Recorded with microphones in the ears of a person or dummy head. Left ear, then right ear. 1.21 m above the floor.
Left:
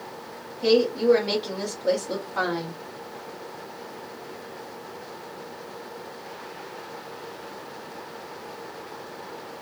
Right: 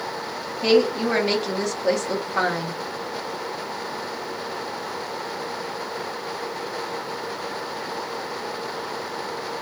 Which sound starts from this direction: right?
A woman speaking, at 0.6 s.